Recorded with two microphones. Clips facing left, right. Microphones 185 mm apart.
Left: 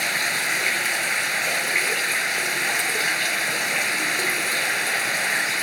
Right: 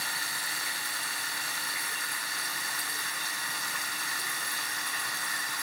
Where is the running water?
80° left.